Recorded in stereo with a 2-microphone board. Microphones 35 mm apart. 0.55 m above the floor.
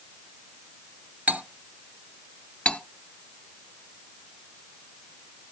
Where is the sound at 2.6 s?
35° left (ahead or behind), 0.6 m.